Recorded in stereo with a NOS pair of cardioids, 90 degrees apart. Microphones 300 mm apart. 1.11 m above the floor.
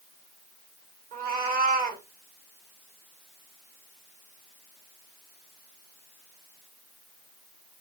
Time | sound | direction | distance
1.1 | a cat meowing | 30° right | 1.4 m